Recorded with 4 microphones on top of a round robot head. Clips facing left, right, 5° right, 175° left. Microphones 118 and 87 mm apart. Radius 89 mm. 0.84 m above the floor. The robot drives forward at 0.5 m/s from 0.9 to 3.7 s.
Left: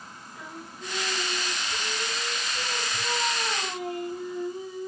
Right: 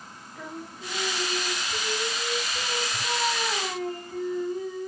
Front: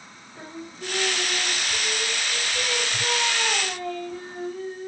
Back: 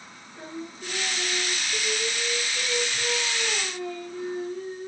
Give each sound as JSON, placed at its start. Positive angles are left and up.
{"t": 0.3, "sound": "singing", "azimuth_deg": 5, "distance_m": 2.0}